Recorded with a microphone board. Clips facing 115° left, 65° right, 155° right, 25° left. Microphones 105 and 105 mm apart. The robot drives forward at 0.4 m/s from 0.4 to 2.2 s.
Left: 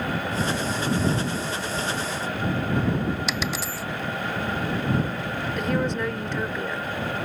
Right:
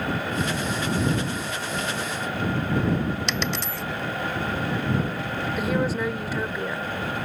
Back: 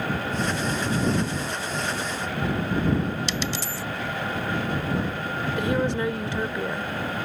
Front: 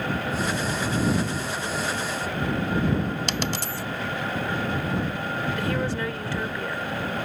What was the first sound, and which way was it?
A dropped coin, 30° left.